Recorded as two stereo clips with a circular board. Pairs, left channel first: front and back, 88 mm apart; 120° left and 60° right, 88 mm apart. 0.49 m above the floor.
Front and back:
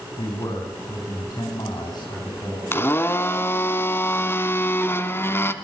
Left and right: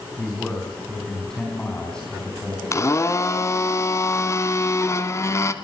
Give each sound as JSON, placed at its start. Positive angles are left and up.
{"t": 0.2, "sound": "a man speaking", "azimuth_deg": 40, "distance_m": 3.5}
{"t": 2.7, "sound": "a blender", "azimuth_deg": 65, "distance_m": 1.3}